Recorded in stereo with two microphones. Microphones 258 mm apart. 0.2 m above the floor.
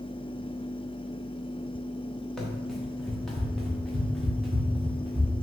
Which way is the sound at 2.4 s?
Centre (ahead or behind).